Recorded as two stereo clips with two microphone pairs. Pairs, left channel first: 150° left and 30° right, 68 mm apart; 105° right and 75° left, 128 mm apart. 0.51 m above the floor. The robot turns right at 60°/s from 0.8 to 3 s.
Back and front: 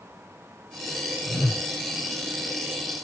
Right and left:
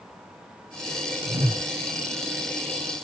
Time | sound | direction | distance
1.3 | a whoosh | 75° left | 1.2 m